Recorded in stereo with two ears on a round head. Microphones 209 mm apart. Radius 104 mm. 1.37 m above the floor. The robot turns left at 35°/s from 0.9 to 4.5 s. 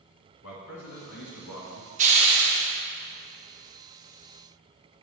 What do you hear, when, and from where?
0.4 s a man speaking: 115° left, 2 m; by 1.9 s 80° left, 2 m
2.0 s a hiss: 30° right (ahead or behind), 1.2 m; by 2.7 s 10° right (ahead or behind), 1.2 m